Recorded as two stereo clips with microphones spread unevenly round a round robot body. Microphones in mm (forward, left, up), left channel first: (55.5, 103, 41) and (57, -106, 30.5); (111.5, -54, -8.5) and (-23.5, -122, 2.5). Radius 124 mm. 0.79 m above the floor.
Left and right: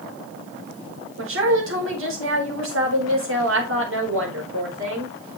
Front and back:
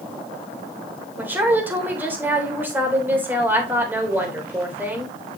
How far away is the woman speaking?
About 3.5 m.